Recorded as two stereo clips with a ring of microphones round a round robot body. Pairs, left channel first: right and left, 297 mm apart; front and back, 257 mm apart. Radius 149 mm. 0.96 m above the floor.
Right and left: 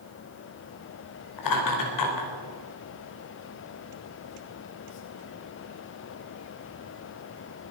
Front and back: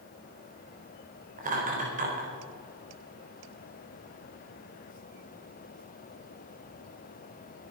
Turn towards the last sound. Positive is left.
turn(degrees=-115)